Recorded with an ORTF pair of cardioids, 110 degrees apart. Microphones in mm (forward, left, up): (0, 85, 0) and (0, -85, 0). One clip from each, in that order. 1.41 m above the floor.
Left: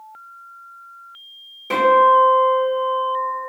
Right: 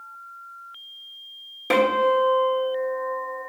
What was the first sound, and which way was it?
A guitar, 40° right.